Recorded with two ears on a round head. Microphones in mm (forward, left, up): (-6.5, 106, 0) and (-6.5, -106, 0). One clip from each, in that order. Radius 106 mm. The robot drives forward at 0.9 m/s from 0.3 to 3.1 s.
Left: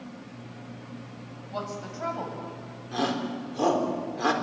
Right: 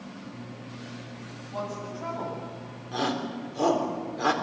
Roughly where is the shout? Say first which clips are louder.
Even; centre.